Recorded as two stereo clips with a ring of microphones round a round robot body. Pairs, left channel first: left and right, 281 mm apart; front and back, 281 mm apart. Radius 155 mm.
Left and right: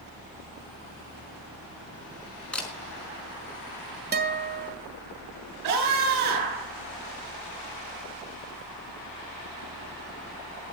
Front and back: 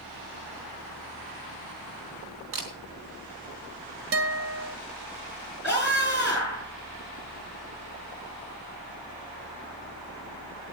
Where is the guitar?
145° right, 2 m.